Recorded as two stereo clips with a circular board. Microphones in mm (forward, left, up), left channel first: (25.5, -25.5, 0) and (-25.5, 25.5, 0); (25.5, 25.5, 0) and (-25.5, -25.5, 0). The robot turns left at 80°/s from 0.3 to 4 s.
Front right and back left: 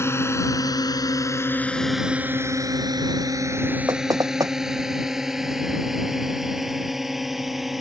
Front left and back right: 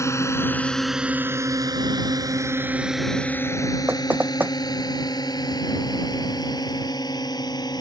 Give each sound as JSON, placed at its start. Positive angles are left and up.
{"t": 0.0, "sound": "a drone", "azimuth_deg": 5}
{"t": 3.9, "sound": "knocking", "azimuth_deg": 170}